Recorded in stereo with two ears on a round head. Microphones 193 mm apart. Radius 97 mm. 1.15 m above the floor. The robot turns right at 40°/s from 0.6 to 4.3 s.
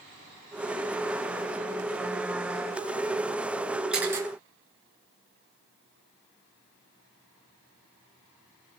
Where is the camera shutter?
5° right (ahead or behind), 5 m; by 4.3 s 15° right (ahead or behind), 5 m.